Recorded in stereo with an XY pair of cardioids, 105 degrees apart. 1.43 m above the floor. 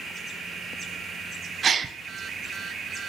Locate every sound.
1.6 s a gasp: 45° right, 0.7 m